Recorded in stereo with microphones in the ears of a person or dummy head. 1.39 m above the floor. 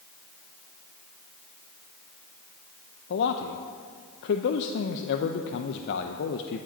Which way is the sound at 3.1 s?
60° left (ahead or behind).